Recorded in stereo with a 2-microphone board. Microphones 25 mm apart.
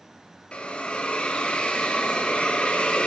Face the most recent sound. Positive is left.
turn(degrees=45)  # may be behind; listen again after turning